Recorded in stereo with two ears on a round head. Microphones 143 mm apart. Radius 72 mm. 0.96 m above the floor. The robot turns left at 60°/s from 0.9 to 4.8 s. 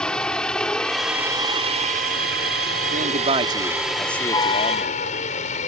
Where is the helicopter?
5° left (ahead or behind); by 5.7 s 45° left (ahead or behind).